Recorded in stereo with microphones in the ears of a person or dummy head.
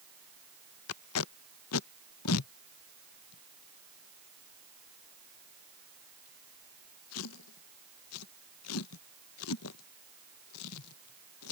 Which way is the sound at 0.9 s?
85° left.